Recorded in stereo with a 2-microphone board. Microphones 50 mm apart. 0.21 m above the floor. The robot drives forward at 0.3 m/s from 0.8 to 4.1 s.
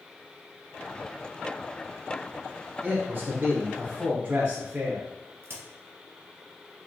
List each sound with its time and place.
2.8 s a man speaking: 30° right (ahead or behind), 1.4 m; by 5.1 s 25° right (ahead or behind), 1.6 m
5.4 s a crack: 55° right (ahead or behind), 1.5 m